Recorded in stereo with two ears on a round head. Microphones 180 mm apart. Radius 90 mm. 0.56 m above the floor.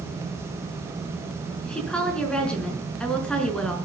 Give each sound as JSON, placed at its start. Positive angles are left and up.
{"t": 1.6, "sound": "a woman speaking", "side_deg": 5, "distance_m": 5.5}